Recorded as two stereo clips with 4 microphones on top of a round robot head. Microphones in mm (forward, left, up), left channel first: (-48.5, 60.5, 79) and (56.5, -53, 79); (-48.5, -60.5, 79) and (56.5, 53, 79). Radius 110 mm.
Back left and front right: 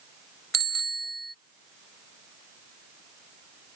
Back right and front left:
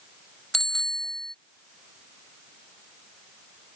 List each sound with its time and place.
0.5 s a bicycle bell: 45° right